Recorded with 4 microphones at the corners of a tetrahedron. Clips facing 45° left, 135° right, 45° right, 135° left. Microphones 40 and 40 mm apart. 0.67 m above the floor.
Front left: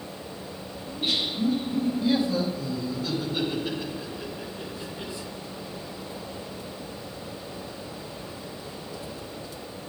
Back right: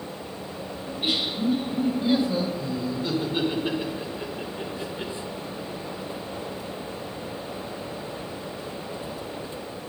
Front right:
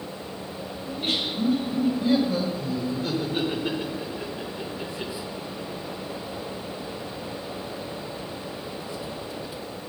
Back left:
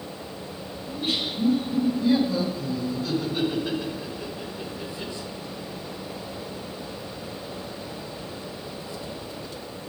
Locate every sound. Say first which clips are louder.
0.8 s laughter: back right 1 dB, even; 70° right, 4 m; by 5.3 s 100° right, 1.6 m